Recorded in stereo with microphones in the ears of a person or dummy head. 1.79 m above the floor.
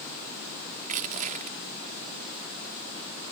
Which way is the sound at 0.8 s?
40° right (ahead or behind).